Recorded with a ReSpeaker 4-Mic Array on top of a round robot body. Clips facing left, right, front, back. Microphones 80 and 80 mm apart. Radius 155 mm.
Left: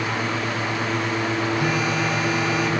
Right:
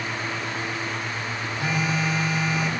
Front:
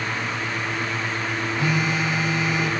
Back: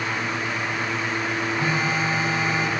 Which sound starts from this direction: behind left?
A phone buzzing, at 1.6 s.